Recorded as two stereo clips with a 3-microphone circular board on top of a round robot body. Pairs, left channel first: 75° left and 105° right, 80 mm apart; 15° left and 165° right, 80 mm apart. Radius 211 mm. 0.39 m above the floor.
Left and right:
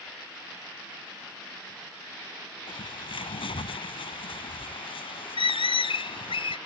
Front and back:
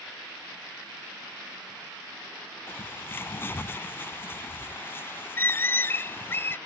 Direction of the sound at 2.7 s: 80° left.